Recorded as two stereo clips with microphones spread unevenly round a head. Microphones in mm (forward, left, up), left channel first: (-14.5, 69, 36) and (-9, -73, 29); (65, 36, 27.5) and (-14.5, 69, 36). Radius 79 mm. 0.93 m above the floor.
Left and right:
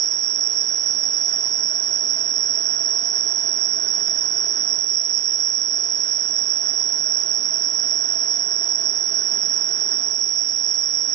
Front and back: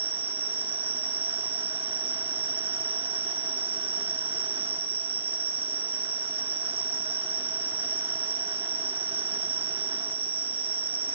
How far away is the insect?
About 0.7 m.